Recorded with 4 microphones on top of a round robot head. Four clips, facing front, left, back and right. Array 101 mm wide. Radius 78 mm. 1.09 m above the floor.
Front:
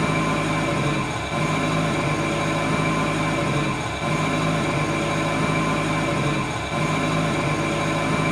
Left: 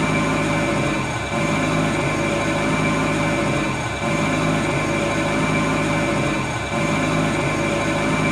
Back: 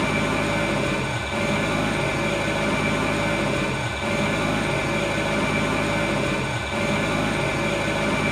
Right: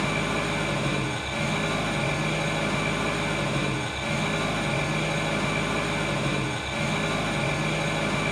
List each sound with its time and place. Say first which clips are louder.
0.0 s an engine running: left 7 dB, front 1 dB; 60° left, 1.7 m